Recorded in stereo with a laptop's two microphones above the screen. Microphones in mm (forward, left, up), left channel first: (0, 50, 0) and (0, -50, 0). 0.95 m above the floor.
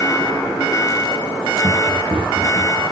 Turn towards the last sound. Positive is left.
turn(degrees=-50)  # may be behind; listen again after turning